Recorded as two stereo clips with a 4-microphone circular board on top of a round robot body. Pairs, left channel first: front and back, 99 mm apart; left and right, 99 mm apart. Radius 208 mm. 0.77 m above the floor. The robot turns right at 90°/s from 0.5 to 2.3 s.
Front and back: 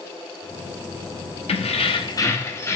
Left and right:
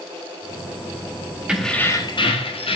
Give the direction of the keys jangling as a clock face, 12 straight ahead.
12 o'clock.